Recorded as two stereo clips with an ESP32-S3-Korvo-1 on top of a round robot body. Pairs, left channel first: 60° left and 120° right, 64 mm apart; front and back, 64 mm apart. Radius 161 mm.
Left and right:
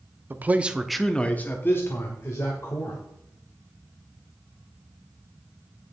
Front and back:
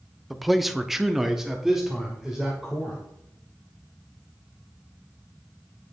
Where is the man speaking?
90° right, 1.3 m; by 3.0 s 95° left, 3 m.